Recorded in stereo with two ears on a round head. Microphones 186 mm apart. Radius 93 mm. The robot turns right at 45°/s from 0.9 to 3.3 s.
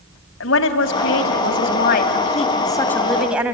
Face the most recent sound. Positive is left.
turn(degrees=-175)